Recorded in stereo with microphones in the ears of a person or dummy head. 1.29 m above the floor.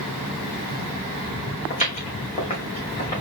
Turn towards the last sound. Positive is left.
turn(degrees=20)  # may be behind; listen again after turning